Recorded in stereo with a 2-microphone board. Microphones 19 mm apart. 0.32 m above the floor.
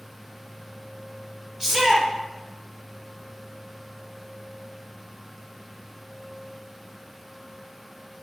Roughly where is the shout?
Right.